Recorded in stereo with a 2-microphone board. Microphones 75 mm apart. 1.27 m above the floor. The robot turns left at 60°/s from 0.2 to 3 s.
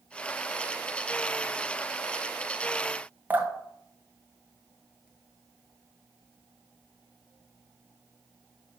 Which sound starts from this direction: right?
Dripping, at 3.3 s.